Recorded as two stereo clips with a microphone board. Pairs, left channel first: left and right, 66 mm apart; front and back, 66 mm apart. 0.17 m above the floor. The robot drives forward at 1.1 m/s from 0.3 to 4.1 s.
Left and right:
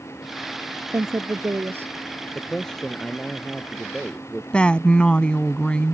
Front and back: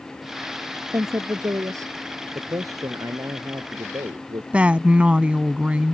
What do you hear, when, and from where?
0.9 s a woman speaking: 135° right; by 1.9 s 145° right
2.4 s a man speaking: 170° left; by 4.4 s 175° left
4.5 s a woman speaking: 140° left